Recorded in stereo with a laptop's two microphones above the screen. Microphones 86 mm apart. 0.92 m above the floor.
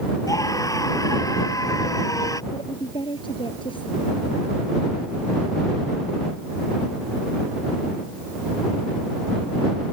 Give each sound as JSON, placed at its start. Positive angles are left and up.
{"t": 0.3, "sound": "a scream", "side_deg": 40}
{"t": 2.5, "sound": "a woman speaking", "side_deg": 90}